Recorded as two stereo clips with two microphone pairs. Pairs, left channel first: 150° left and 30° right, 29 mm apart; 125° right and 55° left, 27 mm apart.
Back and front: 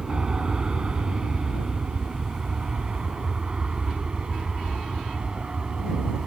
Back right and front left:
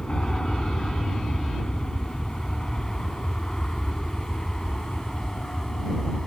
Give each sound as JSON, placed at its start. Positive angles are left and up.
{"t": 0.0, "sound": "an aircraft", "azimuth_deg": -75}